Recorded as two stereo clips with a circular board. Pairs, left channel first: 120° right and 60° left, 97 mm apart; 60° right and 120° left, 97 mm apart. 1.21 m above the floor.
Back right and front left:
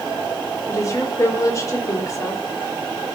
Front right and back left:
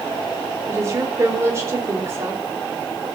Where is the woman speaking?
Straight behind, 5.5 m.